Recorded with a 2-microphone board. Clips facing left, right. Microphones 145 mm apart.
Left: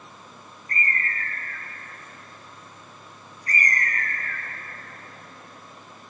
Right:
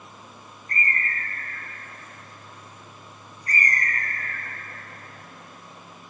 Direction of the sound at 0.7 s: 35° right (ahead or behind).